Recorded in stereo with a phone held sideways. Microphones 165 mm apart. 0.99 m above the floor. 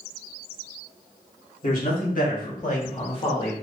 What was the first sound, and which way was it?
A man speaking, 55° left (ahead or behind).